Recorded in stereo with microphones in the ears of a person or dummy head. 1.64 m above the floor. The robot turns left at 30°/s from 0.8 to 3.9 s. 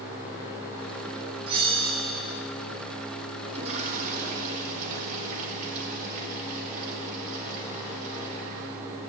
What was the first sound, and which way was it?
A bell, 30° right (ahead or behind).